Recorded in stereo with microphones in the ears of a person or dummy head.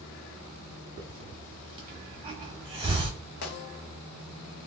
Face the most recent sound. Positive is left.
turn(degrees=50)  # may be behind; listen again after turning